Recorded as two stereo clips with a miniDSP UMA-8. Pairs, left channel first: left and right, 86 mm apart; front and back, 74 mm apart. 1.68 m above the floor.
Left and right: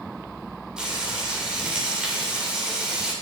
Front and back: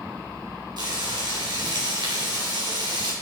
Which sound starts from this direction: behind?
Frying, at 0.8 s.